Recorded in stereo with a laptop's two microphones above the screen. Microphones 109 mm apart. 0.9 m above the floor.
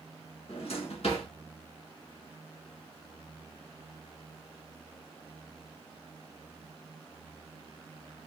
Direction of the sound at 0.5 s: 65° left (ahead or behind).